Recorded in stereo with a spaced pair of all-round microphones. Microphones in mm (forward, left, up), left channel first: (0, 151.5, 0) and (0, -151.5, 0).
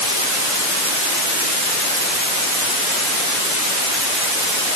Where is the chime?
No chime in this recording.